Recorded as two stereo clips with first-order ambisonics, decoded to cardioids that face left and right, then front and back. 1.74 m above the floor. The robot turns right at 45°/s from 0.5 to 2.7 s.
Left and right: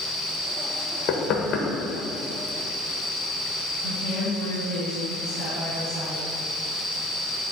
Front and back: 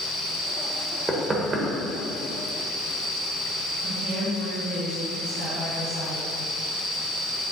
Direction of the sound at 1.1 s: 100° left.